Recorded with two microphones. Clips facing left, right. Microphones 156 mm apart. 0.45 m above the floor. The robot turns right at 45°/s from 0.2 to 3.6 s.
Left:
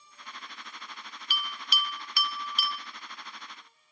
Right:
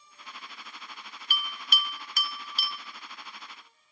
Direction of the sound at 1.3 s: 50° right (ahead or behind).